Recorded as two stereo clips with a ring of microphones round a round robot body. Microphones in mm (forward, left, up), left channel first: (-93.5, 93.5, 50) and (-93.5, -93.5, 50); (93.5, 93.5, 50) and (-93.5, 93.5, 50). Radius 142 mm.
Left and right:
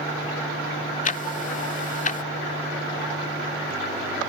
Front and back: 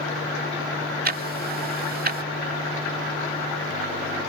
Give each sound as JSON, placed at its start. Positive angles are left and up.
{"t": 1.1, "sound": "ticking", "azimuth_deg": 140}